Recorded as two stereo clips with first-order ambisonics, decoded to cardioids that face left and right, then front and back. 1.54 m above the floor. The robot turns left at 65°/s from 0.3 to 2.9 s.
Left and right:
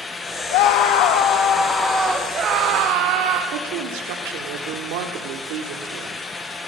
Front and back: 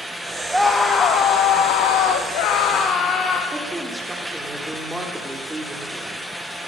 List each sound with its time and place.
0.5 s a scream: 95° left, 2 m; by 3.4 s 60° right, 2 m
3.5 s a woman speaking: 95° right, 4 m